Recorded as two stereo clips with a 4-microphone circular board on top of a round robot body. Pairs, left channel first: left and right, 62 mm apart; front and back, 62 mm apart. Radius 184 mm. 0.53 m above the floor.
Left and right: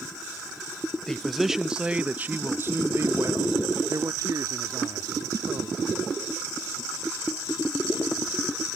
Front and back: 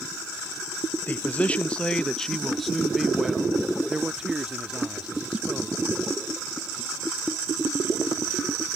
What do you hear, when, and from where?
1.1 s a man speaking: 15° left; by 5.8 s 110° right